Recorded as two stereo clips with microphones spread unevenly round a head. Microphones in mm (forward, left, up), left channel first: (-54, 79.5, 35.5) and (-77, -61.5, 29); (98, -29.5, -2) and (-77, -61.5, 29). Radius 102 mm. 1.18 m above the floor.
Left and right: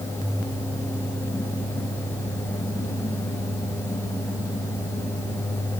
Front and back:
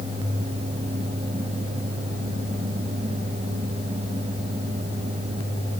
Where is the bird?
I don't hear a bird.